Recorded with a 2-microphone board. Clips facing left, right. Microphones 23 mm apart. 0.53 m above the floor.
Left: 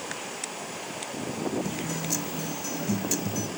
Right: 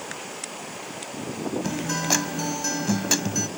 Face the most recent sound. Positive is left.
turn(degrees=-70)  # may be behind; listen again after turning